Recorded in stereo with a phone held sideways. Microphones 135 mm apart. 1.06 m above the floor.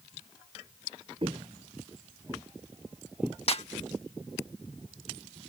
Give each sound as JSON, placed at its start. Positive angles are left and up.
{"t": 1.2, "sound": "footsteps", "side_deg": -45}
{"t": 3.5, "sound": "a snare drum", "side_deg": 50}